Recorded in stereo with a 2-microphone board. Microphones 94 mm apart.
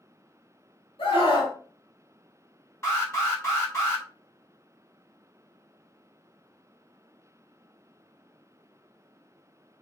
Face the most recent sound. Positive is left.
turn(degrees=30)  # may be behind; listen again after turning